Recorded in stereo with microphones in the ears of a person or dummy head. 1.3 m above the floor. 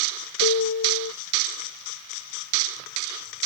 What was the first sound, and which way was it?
A piano, 65° left (ahead or behind).